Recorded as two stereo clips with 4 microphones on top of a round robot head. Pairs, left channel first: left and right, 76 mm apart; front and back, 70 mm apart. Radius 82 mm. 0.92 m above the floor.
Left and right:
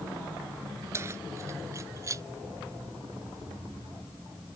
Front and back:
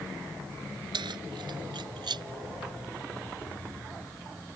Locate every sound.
0.9 s keys jangling: 150° right; by 2.2 s 145° right